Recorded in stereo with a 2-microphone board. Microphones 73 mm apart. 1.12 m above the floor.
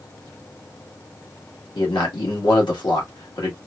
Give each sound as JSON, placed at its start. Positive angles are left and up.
{"t": 1.8, "sound": "a man speaking", "side_deg": 75, "distance_m": 1.5}